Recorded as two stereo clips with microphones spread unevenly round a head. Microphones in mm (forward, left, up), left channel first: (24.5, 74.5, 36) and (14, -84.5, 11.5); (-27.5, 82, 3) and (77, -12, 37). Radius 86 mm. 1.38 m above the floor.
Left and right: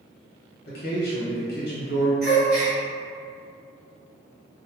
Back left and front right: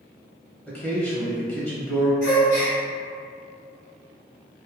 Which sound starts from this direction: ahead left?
A man speaking, at 0.7 s.